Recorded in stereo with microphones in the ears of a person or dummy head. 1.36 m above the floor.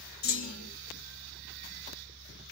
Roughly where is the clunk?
Left.